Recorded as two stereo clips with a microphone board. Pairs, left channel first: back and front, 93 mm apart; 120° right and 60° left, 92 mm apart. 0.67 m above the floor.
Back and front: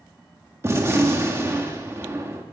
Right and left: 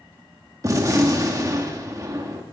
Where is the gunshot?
40° left, 1.2 m.